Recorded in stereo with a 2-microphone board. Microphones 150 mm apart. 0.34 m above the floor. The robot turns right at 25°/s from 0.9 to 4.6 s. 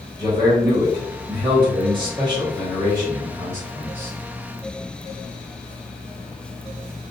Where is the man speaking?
115° right, 1.4 m; by 4.1 s 35° right, 1.4 m.